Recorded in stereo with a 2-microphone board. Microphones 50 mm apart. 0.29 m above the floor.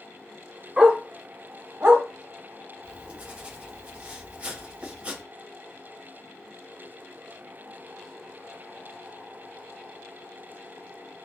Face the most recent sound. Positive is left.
turn(degrees=-25)  # may be behind; listen again after turning